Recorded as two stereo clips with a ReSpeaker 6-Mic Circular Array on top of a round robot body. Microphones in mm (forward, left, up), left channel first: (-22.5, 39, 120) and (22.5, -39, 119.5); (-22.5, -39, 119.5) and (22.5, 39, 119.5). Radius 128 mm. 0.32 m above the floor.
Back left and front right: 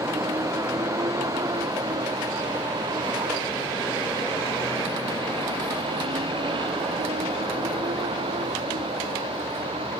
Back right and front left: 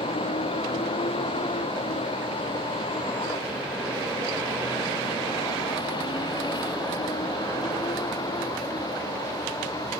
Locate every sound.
0.0 s a vehicle: 120° right; by 10.0 s 70° right